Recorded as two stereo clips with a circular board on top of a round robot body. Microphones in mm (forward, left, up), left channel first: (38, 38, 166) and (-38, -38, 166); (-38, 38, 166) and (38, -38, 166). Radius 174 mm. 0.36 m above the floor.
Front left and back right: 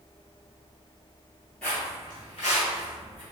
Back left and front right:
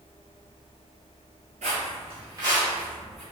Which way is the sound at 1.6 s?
35° right.